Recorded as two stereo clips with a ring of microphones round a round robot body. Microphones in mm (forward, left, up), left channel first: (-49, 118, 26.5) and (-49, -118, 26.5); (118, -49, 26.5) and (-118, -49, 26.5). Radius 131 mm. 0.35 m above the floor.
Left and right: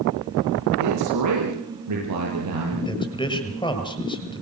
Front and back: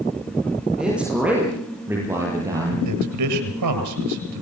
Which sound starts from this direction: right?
A man speaking, at 0.8 s.